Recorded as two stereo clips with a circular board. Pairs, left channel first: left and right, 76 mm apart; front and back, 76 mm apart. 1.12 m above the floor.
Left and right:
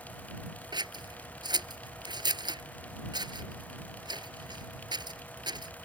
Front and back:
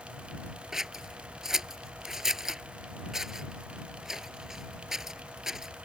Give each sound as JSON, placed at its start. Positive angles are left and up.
{"t": 0.7, "sound": "scissors", "azimuth_deg": -95}